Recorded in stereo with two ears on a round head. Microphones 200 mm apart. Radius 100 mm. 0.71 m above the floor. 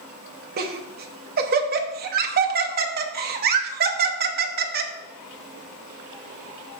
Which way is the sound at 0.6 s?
45° right (ahead or behind).